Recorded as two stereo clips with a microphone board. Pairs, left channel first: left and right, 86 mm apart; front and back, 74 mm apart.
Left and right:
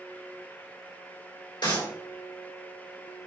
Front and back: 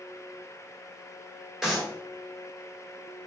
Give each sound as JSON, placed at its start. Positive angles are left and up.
{"t": 1.6, "sound": "a clap", "azimuth_deg": 100, "distance_m": 2.5}